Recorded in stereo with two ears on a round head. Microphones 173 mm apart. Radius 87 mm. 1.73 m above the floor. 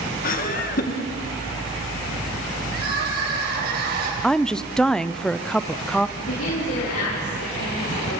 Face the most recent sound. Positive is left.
turn(degrees=85)